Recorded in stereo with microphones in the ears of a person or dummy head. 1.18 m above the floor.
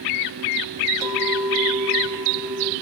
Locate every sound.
1.0 s a clink: 15° right (ahead or behind), 2.5 m